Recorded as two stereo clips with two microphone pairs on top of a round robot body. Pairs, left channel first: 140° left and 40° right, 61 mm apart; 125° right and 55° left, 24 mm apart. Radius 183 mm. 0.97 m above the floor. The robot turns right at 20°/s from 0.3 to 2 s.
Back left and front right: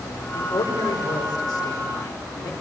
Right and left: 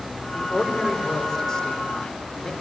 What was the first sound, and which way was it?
A man speaking, 135° left.